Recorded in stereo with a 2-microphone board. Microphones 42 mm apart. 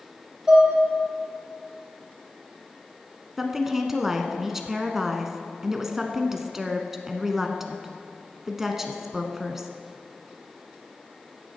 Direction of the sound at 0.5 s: 25° right (ahead or behind).